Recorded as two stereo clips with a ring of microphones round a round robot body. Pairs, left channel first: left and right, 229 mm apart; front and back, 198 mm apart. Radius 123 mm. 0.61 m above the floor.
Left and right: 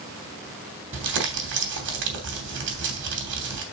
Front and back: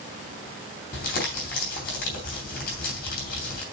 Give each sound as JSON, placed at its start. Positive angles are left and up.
{"t": 0.9, "sound": "crumpling", "azimuth_deg": -50, "distance_m": 3.0}